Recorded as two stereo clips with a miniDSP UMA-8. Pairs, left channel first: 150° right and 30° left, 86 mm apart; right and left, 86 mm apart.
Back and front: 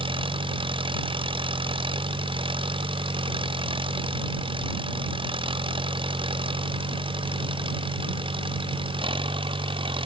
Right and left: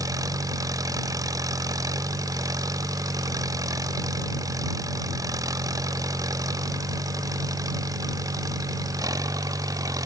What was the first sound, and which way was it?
An engine running, 45° left.